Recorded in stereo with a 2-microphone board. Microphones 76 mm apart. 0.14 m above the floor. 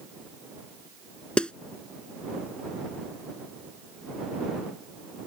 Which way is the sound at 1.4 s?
15° left (ahead or behind).